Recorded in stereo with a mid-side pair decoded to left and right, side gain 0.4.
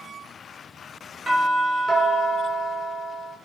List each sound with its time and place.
1.3 s a doorbell: 45° right, 4 m